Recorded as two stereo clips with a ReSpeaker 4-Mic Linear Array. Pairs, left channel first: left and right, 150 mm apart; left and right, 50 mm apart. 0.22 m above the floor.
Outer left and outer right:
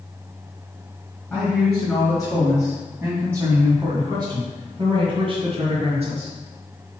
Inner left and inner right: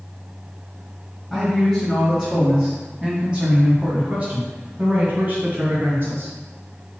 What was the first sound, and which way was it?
A man speaking, 5° left (ahead or behind).